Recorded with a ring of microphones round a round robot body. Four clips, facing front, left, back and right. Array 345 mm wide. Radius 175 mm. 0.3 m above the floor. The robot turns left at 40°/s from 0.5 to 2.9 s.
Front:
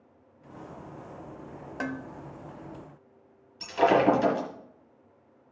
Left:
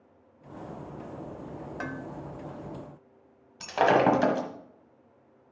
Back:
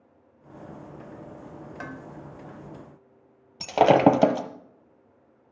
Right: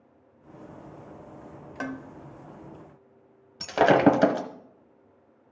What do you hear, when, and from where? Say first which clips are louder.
1.8 s dishes clattering: right 4 dB, front 6 dB; 45° right, 0.7 m; by 2.0 s 55° right, 0.7 m
3.6 s breaking glass: right 3 dB, back 4 dB; 150° right, 1.3 m